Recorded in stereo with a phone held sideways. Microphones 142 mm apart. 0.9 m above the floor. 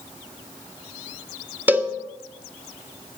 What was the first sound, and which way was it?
A cowbell, 10° right (ahead or behind).